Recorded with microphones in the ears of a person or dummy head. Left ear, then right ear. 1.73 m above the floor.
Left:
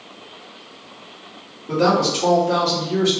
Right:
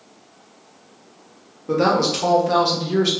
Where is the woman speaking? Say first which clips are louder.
Even; 55° right (ahead or behind), 1.0 m; by 3.1 s 50° right (ahead or behind), 1.4 m.